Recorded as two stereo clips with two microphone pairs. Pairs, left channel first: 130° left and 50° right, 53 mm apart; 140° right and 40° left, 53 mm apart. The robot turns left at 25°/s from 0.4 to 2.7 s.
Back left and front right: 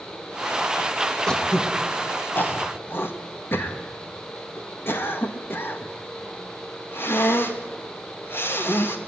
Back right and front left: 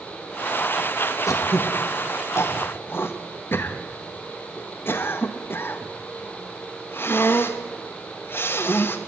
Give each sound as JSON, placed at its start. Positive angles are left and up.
{"t": 1.3, "sound": "throat clearing", "azimuth_deg": -150, "distance_m": 2.0}